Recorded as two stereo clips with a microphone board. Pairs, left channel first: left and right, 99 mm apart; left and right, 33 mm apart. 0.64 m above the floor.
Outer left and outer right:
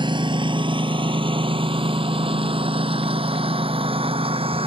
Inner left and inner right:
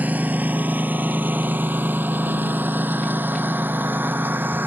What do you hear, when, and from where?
0.0 s a lawn mower: 50° right (ahead or behind); by 4.7 s 70° right (ahead or behind)